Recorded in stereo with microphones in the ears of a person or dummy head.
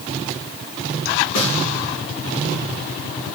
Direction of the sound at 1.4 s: 80° left.